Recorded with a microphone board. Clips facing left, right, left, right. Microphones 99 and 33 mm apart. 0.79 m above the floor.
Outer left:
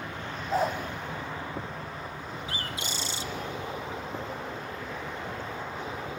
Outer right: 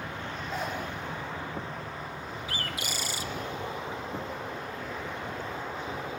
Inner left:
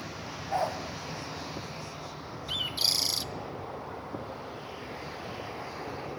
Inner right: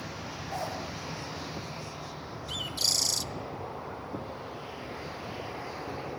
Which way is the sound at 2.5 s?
25° left (ahead or behind).